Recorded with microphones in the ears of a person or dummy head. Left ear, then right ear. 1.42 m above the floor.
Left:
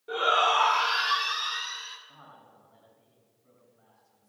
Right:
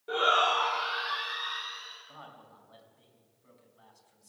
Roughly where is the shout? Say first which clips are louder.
Left 2 dB; centre.